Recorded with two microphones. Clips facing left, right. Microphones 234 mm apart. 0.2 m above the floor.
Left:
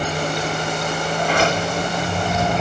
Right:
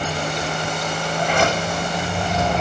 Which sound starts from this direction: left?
A sliding door, at 1.2 s.